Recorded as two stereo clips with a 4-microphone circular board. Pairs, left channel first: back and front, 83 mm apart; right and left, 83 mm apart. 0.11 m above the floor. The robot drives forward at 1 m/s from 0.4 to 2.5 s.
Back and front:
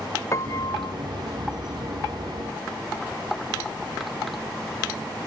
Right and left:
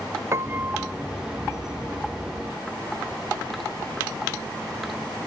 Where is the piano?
140° left; by 0.9 s 160° left.